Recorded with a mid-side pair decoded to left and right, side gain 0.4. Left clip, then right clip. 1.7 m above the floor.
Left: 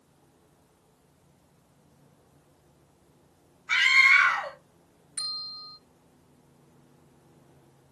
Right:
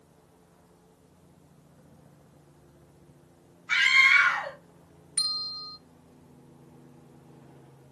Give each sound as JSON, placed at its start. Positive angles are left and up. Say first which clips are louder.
{"t": 3.7, "sound": "a scream", "louder": "left 1 dB", "azimuth_deg": 25, "distance_m": 1.2}
{"t": 5.2, "sound": "a bell", "louder": "right 4 dB", "azimuth_deg": -45, "distance_m": 1.1}